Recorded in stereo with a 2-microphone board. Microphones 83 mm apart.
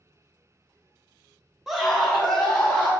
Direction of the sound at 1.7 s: 5° right (ahead or behind).